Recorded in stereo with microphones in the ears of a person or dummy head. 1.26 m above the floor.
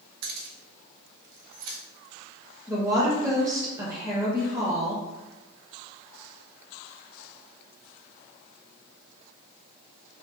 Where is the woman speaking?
20° right (ahead or behind), 0.7 m.